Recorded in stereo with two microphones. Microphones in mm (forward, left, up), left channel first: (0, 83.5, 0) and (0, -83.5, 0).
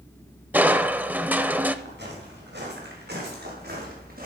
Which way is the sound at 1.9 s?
85° right.